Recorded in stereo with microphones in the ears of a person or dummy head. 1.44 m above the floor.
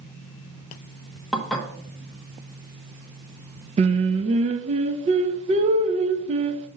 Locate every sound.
1.3 s dishes clattering: 5° left (ahead or behind), 1.1 m
3.8 s singing: 30° right (ahead or behind), 0.8 m